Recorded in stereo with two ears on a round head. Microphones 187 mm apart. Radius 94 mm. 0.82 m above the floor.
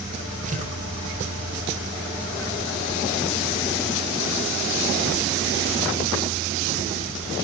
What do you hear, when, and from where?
0.5 s tearing paper: 40° right (ahead or behind), 2.5 m